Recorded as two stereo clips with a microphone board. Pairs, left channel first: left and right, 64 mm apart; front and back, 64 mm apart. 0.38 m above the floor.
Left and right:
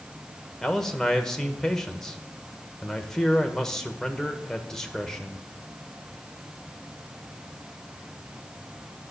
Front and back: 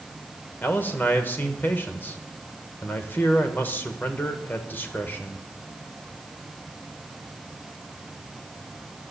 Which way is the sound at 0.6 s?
15° left.